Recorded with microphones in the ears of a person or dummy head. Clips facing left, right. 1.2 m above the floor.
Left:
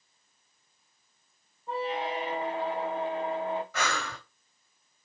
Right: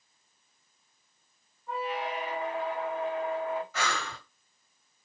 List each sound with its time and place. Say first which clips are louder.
1.7 s a squeak: left 2 dB; 20° left (ahead or behind), 0.6 m
3.7 s breathing: left 1 dB; 50° left (ahead or behind), 2.5 m